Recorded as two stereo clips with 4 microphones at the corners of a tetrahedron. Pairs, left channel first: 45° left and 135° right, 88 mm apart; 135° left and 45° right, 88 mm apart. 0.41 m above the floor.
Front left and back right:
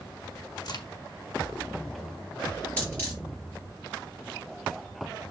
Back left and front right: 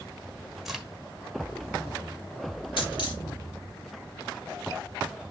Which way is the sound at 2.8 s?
120° left.